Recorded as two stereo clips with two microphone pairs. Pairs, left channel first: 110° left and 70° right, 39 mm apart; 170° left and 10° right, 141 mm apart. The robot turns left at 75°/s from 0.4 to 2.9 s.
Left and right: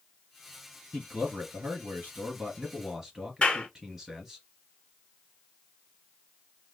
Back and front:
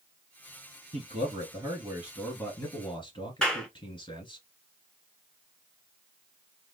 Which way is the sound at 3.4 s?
90° left.